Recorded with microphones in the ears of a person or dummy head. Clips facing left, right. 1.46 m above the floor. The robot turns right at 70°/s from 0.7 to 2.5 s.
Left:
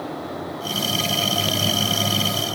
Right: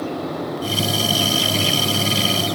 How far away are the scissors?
No scissors in this recording.